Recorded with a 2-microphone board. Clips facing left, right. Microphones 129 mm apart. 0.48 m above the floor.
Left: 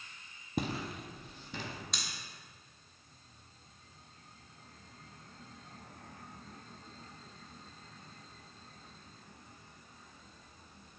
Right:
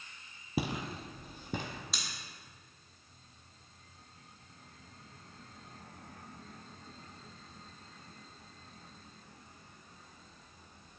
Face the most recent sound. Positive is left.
turn(degrees=-5)  # may be behind; listen again after turning